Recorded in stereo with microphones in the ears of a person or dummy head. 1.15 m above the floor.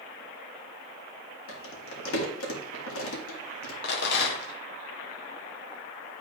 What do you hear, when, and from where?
1.5 s crumpling: 85° left, 1.9 m
3.8 s a rattle: 60° left (ahead or behind), 1.2 m